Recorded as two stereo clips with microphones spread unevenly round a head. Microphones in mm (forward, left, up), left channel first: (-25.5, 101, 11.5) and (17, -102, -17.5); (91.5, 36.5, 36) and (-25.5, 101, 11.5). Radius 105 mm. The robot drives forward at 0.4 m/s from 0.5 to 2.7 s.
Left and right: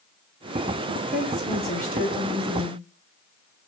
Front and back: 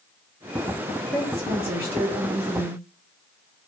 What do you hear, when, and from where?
1.1 s a woman speaking: 170° right, 0.9 m; by 2.8 s 175° right, 1.5 m